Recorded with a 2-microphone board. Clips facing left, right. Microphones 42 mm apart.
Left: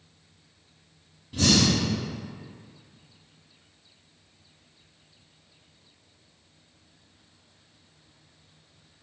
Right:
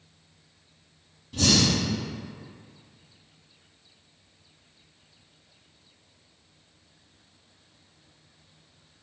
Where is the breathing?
10° left (ahead or behind), 1.5 m.